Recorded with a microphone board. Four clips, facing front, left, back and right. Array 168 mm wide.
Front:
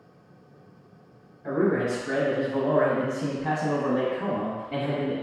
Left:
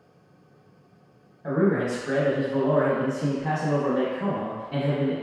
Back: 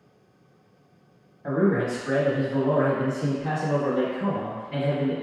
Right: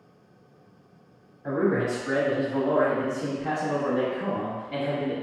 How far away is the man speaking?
About 1.1 m.